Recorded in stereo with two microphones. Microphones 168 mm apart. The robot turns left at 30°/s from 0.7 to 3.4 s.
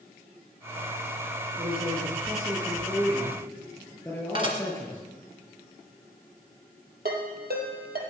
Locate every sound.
1.6 s a man speaking: 135° right, 7 m; by 5.0 s 170° left, 7 m
4.3 s dishes clattering: 30° right (ahead or behind), 2.5 m
7.0 s a ringtone: 75° right (ahead or behind), 3.5 m